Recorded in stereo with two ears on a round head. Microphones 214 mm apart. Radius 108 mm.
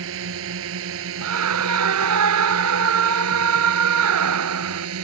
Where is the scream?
70° right (ahead or behind).